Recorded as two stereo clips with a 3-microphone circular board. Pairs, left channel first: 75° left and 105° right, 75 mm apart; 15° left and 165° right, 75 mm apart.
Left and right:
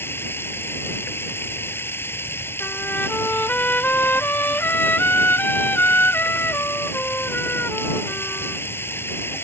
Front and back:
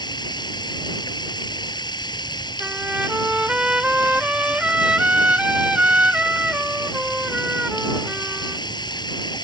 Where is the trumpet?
130° left.